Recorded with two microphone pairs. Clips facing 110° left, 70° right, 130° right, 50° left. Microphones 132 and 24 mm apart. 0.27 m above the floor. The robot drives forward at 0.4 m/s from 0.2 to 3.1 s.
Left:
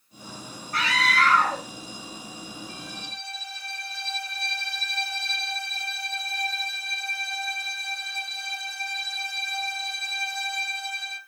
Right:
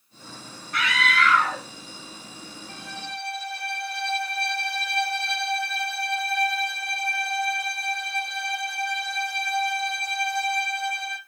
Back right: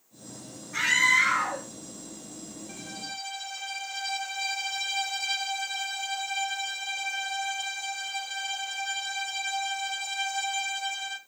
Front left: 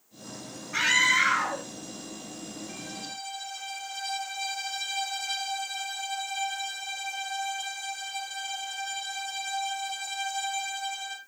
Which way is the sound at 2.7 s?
45° right.